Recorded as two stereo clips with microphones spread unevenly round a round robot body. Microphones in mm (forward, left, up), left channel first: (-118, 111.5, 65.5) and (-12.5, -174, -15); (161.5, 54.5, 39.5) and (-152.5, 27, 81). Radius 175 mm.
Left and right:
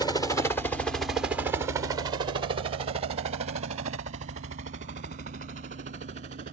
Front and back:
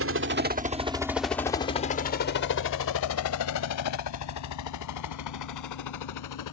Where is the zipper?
I don't hear a zipper.